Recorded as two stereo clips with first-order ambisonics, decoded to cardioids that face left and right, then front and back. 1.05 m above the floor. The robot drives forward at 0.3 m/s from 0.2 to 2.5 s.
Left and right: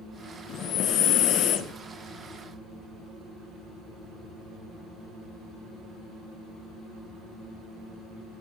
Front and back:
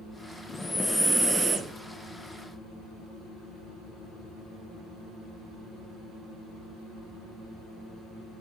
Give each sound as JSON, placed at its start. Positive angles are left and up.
{"t": 0.5, "sound": "breathing", "azimuth_deg": 70, "distance_m": 0.6}